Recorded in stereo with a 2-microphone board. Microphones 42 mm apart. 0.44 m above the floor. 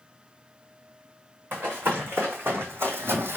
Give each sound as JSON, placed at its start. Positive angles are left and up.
{"t": 1.5, "sound": "running footsteps", "side_deg": -55, "distance_m": 1.9}